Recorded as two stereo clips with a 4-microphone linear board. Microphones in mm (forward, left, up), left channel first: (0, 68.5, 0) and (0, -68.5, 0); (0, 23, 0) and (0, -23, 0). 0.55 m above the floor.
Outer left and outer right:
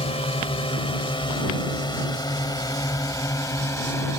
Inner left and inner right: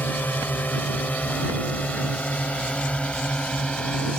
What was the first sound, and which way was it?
A drone, 50° left (ahead or behind).